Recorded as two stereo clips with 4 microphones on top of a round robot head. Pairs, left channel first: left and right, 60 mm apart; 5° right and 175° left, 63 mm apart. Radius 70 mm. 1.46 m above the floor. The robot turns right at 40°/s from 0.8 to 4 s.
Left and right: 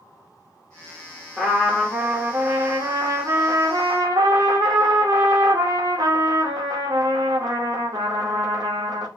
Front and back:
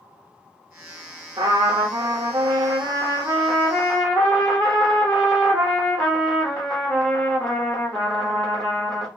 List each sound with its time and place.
1.4 s a trumpet: 170° left, 1.1 m; by 9.1 s 85° right, 1.1 m